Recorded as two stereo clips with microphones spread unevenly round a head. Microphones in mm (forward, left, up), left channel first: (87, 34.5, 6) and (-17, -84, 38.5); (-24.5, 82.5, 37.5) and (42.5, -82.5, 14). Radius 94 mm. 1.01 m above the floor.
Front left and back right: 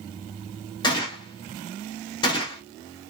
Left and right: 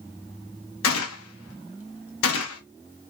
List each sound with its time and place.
0.8 s a gunshot: 115° left, 1.4 m